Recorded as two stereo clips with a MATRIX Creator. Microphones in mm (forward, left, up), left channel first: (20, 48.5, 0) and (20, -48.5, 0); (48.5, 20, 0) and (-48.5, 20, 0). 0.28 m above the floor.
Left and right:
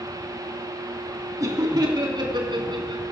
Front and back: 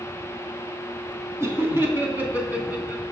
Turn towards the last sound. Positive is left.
turn(degrees=-105)